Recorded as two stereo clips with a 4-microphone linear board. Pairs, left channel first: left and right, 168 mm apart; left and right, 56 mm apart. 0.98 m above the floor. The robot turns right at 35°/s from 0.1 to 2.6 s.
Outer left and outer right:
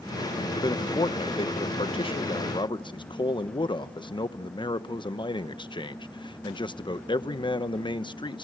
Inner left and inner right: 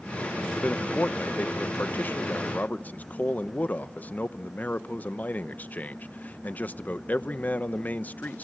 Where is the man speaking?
50° left, 0.7 m; by 8.4 s 120° left, 0.7 m.